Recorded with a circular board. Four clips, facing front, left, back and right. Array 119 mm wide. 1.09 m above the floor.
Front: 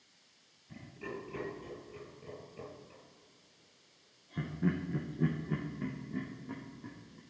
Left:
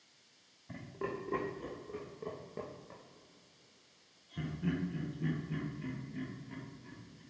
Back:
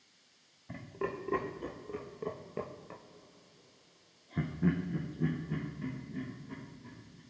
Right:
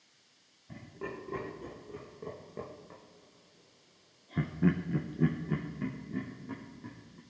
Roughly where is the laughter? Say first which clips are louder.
Left 2 dB, back 6 dB; behind.